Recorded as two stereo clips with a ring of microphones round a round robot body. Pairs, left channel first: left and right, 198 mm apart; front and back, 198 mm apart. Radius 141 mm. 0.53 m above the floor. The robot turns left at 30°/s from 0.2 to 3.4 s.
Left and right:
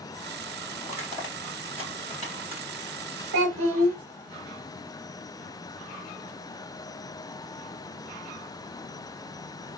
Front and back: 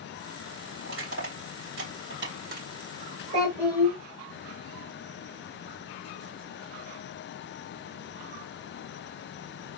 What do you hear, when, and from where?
0.8 s crushing: 170° right, 3 m; by 2.7 s 140° left, 3 m
3.3 s a child speaking: 115° right, 0.9 m